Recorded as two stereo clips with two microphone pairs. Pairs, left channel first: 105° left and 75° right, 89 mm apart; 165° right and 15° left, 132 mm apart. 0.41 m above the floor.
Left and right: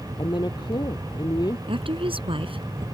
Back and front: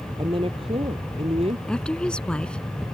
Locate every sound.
0.2 s a woman speaking: 65° left; by 1.6 s 60° left
1.7 s a woman speaking: 80° right